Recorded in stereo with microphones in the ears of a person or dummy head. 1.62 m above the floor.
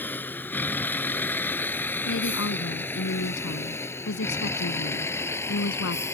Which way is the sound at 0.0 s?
15° left (ahead or behind).